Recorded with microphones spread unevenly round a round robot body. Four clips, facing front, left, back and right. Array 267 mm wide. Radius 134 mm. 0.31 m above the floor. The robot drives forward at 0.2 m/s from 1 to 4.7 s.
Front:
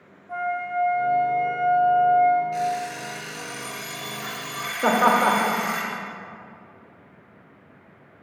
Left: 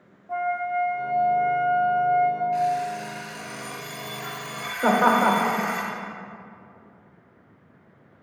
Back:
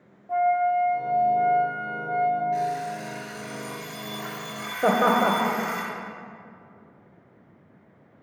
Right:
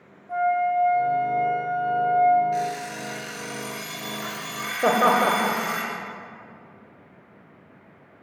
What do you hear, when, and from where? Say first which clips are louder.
0.3 s a flute: right 4 dB, back 6 dB; 175° right, 1.3 m
2.5 s an alarm clock: left 4 dB, front 1 dB; 100° right, 2.5 m; by 5.8 s 110° right, 2.5 m
4.8 s laughter: even, front 2 dB; 130° right, 1.0 m